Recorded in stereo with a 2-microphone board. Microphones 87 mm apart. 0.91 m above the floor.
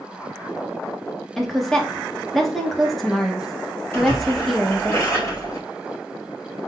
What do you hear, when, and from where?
1.4 s a woman speaking: centre (ahead or behind), 0.9 m
3.9 s a splash: 30° left (ahead or behind), 2.5 m